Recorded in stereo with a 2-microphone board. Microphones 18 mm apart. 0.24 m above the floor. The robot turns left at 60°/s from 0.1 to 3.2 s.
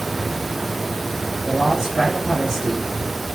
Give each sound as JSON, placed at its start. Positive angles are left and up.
{"t": 1.4, "sound": "a man speaking", "azimuth_deg": -105, "distance_m": 4.5}